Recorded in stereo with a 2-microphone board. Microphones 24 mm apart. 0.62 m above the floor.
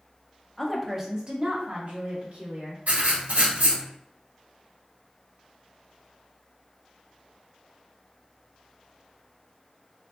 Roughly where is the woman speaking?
Centre.